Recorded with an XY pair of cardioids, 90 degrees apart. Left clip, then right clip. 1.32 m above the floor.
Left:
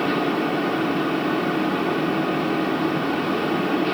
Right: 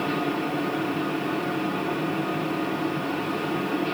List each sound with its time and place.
0.0 s a fan: 60° left, 0.8 m